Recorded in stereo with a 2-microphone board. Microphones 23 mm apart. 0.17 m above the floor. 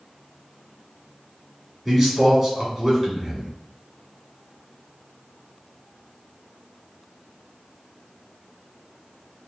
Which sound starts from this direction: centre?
A man speaking, at 1.9 s.